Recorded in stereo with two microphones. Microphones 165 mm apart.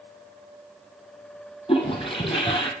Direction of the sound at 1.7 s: 35° left (ahead or behind).